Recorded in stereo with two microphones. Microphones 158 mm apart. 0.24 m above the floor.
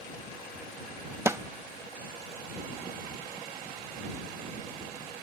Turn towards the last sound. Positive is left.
turn(degrees=-20)  # may be behind; listen again after turning